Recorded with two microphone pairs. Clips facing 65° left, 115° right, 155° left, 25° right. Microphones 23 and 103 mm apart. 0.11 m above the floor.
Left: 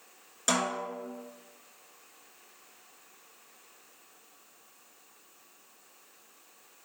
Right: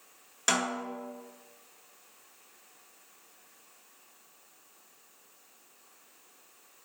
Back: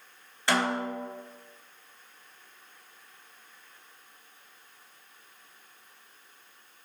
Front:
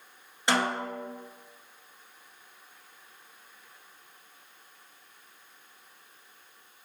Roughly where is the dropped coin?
I don't hear a dropped coin.